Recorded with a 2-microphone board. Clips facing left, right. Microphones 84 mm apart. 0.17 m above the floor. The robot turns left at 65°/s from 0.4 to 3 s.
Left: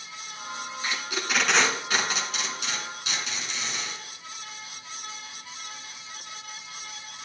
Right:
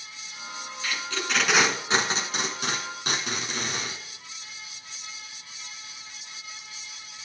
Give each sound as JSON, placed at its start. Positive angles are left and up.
{"t": 0.8, "sound": "tape being pulled", "side_deg": 30, "distance_m": 1.9}